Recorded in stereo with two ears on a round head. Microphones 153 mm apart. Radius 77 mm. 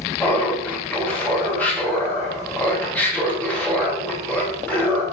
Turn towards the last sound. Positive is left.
turn(degrees=10)  # may be behind; listen again after turning